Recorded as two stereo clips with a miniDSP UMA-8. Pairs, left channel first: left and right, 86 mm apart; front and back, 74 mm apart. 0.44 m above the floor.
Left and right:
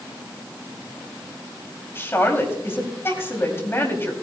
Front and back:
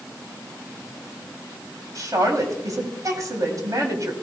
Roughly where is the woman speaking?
Behind left.